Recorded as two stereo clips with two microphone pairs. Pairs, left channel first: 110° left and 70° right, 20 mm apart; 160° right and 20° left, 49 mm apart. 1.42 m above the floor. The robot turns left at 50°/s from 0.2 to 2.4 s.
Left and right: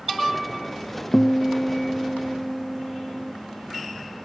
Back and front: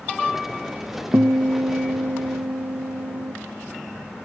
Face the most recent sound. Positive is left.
turn(degrees=5)